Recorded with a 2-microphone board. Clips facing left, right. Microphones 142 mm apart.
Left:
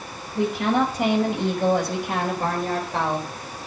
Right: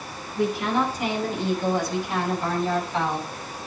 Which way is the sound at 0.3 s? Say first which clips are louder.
Left 2 dB; 75° left (ahead or behind).